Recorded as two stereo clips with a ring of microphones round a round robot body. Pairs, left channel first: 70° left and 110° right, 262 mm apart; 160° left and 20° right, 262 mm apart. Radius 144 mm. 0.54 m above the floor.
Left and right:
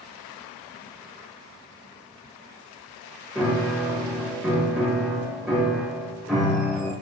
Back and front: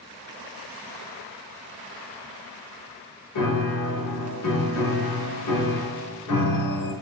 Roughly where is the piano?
Behind.